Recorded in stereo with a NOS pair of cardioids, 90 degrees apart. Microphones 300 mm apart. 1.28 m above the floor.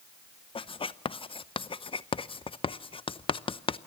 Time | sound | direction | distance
0.6 | writing | 20° left | 0.6 m